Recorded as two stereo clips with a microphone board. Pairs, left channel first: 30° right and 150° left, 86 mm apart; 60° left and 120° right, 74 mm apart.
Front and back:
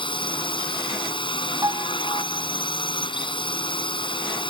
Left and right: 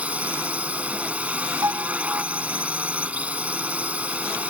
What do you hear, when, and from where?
0.0 s a drone: 45° right
1.6 s a piano: 165° right